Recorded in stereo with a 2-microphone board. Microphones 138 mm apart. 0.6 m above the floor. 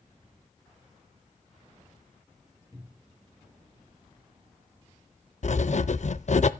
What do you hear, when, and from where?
2.7 s a cupboard door: 25° right (ahead or behind), 1.6 m
5.4 s writing: 55° left (ahead or behind), 0.6 m